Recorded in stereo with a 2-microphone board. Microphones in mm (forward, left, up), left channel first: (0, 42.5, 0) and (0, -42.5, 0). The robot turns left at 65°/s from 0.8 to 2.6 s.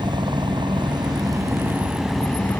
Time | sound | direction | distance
0.0 | a helicopter | 60° right (ahead or behind) | ?